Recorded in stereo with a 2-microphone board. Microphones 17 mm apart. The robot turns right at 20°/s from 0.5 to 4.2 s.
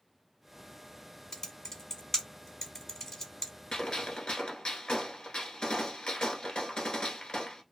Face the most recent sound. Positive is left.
turn(degrees=55)  # may be behind; listen again after turning